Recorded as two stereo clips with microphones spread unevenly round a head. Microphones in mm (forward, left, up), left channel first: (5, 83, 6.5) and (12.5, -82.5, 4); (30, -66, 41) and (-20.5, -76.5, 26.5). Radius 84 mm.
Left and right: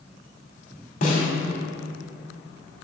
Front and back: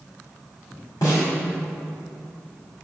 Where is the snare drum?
50° left, 2 m.